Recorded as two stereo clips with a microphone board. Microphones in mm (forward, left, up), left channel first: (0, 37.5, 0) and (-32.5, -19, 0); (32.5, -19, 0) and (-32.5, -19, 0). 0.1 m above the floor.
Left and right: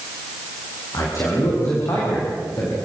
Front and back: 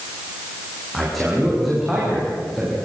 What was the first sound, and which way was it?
A man speaking, 90° left.